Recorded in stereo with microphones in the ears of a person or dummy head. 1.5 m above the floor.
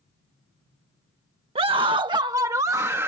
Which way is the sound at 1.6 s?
25° right (ahead or behind).